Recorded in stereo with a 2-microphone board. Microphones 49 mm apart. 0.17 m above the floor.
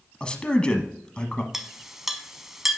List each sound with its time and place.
0.2 s a man speaking: 20° left (ahead or behind), 1.0 m
1.5 s a clink: 10° right (ahead or behind), 0.6 m